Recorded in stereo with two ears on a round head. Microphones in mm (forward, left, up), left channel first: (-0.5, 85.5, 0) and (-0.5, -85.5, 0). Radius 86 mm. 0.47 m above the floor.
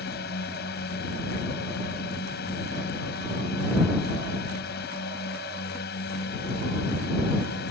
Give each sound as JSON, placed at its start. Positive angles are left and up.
{"t": 0.0, "sound": "a drone", "side_deg": 55}